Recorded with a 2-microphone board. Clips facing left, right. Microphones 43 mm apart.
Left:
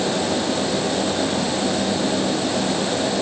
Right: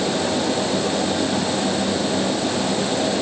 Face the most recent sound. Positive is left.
No sound to turn to.